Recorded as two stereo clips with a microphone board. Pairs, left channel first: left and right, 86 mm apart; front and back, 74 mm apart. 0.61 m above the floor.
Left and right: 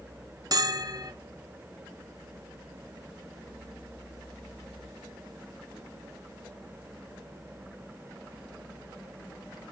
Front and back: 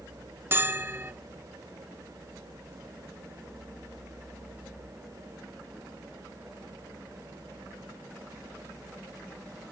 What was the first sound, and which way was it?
A bell, 125° right.